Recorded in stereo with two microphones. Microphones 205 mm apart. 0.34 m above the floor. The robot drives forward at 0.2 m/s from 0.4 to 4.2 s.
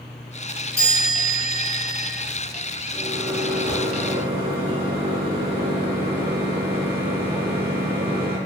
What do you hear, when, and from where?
0.8 s a chime: 30° right (ahead or behind), 1.6 m; by 2.1 s 25° right (ahead or behind), 1.7 m
2.9 s a microwave: 25° right (ahead or behind), 1.0 m; by 8.4 s 30° right (ahead or behind), 0.9 m